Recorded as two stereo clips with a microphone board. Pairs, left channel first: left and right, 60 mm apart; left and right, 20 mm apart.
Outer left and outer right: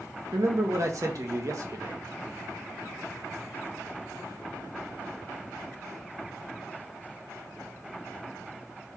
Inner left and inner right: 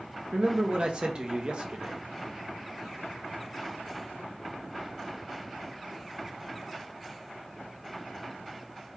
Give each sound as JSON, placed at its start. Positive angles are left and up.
{"t": 0.3, "sound": "a man speaking", "side_deg": -60, "distance_m": 1.0}